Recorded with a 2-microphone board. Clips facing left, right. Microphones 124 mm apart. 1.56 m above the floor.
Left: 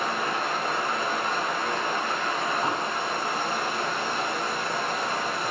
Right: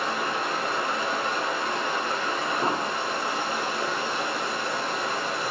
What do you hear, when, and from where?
0.0 s running water: 45° left (ahead or behind), 1.1 m
2.6 s an explosion: 45° right (ahead or behind), 0.7 m